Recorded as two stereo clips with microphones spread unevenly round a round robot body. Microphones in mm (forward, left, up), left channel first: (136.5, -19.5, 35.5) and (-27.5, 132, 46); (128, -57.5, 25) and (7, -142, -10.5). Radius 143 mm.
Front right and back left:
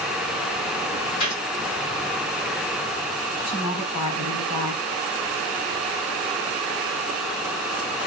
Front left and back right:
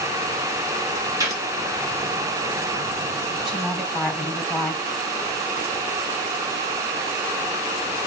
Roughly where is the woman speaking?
Ahead right.